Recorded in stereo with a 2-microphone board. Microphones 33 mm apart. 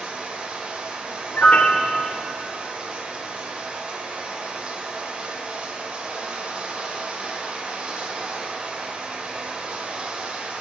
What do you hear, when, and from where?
0.0 s running water: 35° right (ahead or behind), 1.3 m
1.3 s a piano: 55° left (ahead or behind), 0.7 m